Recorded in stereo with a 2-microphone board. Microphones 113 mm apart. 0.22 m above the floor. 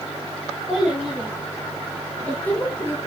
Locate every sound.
0.7 s a child speaking: centre (ahead or behind), 2.5 m; by 3.0 s 20° left (ahead or behind), 2.0 m